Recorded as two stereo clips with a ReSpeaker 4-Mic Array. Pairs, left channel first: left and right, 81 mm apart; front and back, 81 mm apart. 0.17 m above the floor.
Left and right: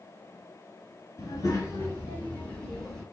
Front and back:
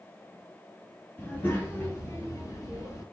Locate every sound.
1.2 s a child speaking: 65° left, 1.5 m; by 3.0 s 5° right, 1.2 m